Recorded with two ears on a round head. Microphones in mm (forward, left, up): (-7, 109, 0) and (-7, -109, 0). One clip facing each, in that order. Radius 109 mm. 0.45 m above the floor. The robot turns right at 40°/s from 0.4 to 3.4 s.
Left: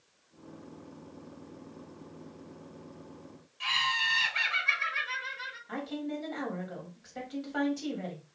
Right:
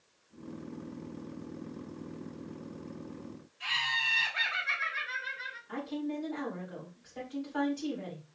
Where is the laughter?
60° left (ahead or behind), 2 m.